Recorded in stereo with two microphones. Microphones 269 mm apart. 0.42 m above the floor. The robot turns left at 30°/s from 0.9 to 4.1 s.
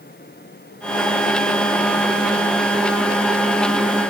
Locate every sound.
Only background noise.